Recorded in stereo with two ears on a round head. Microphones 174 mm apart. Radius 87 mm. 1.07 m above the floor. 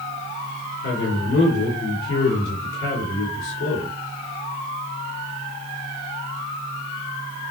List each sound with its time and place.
0.8 s a man speaking: 55° left (ahead or behind), 2.5 m